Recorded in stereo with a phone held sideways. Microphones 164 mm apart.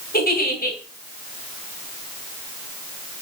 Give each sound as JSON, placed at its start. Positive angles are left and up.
{"t": 0.1, "sound": "a giggle", "side_deg": 65, "distance_m": 3.0}